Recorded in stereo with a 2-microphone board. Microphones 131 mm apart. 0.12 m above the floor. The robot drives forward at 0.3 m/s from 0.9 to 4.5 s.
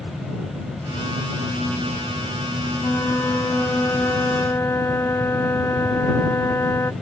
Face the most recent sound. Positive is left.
turn(degrees=20)  # may be behind; listen again after turning